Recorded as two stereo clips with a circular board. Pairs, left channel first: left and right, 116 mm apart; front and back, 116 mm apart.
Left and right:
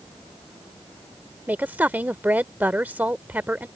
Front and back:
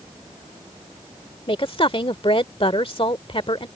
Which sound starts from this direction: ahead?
A woman speaking, at 1.5 s.